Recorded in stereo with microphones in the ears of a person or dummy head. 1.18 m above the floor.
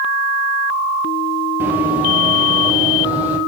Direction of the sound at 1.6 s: 15° right (ahead or behind).